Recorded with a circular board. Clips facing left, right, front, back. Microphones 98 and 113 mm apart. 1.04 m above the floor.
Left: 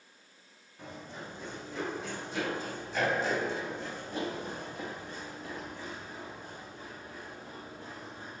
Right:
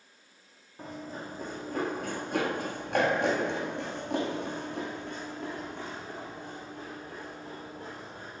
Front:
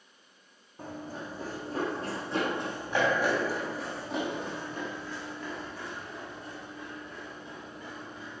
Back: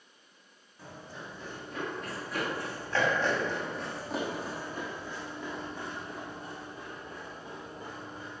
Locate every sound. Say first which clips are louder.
0.8 s running footsteps: right 4 dB, front 6 dB; 40° right, 3 m; by 8.4 s 130° right, 5 m